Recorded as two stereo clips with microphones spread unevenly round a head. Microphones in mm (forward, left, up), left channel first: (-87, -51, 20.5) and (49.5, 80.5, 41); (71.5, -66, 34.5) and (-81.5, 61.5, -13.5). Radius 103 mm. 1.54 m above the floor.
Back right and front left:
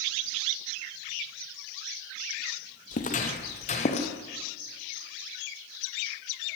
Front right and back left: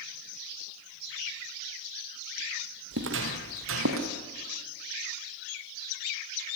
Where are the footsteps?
175° left, 2.5 m; by 4.1 s 165° left, 3.5 m.